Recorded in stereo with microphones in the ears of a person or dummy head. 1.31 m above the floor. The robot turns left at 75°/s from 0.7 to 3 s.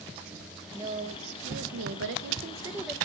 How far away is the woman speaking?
About 0.8 m.